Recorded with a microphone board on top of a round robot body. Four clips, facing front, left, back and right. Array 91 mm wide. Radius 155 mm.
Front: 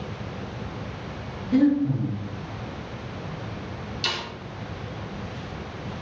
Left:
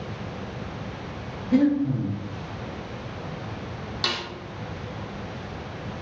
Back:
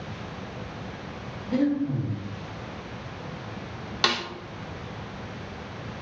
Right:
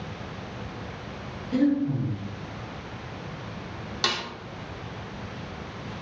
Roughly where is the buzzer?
I don't hear a buzzer.